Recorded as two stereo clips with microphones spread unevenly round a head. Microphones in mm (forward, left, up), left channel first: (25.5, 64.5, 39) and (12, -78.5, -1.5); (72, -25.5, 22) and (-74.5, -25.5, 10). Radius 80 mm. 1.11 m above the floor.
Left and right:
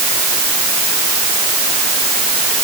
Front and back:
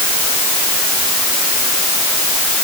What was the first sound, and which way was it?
Only background noise.